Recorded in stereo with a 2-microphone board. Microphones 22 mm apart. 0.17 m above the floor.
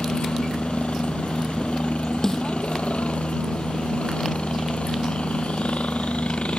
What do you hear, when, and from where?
0.0 s a helicopter: 65° left (ahead or behind)
2.2 s a snare drum: 25° left (ahead or behind)